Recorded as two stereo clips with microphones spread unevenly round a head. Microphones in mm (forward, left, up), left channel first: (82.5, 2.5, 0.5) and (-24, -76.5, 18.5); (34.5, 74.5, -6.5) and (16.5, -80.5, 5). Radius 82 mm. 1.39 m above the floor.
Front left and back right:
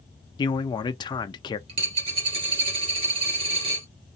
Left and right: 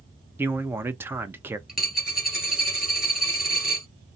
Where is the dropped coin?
Straight behind, 2 m.